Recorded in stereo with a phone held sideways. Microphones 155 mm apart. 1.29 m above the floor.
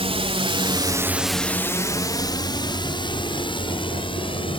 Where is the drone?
40° right (ahead or behind); by 4.6 s 35° left (ahead or behind).